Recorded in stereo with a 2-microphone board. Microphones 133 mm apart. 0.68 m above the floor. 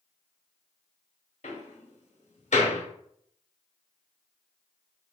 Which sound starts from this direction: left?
A door slam, at 1.4 s.